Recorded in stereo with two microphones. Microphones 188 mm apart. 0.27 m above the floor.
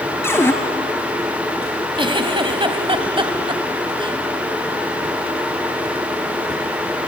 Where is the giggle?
25° right (ahead or behind), 1.5 m.